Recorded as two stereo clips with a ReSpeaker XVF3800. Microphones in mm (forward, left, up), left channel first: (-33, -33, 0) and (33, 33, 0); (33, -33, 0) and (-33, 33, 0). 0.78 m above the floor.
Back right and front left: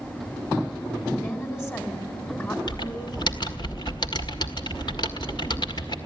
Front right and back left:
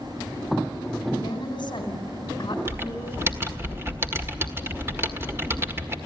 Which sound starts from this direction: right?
A woman speaking, at 1.2 s.